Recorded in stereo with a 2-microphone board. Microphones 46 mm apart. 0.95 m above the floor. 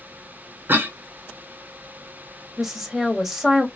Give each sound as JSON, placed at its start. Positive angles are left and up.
{"t": 0.7, "sound": "a cough", "side_deg": -45, "distance_m": 0.8}
{"t": 2.6, "sound": "a woman speaking", "side_deg": -5, "distance_m": 1.1}